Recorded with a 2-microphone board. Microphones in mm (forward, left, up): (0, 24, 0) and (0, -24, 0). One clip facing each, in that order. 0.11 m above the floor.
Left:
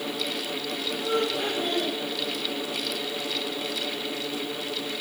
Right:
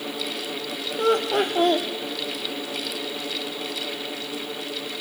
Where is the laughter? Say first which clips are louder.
Right 7 dB; 65° right (ahead or behind), 4.5 m.